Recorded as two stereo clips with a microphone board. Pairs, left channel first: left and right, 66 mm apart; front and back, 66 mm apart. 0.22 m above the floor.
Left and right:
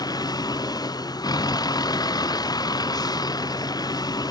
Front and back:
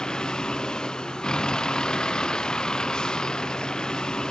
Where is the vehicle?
75° left.